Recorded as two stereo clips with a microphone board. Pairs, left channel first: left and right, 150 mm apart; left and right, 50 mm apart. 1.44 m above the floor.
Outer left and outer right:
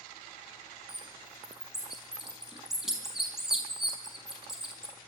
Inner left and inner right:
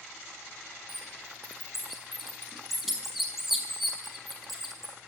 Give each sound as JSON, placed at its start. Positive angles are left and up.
{"t": 0.9, "sound": "a bird", "side_deg": -5, "distance_m": 4.5}